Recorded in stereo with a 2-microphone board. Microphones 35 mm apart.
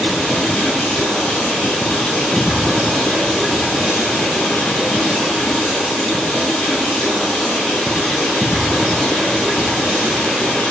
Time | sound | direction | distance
0.0 | running water | 30° left (ahead or behind) | 6.5 m